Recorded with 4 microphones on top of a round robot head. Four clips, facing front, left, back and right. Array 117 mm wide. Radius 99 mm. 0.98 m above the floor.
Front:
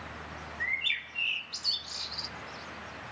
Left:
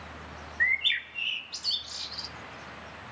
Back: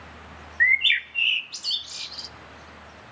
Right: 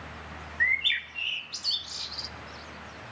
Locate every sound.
0.6 s a bird: straight behind, 0.6 m